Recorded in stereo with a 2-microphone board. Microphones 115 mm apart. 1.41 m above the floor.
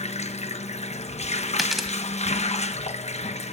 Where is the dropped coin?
Centre (ahead or behind), 2 m.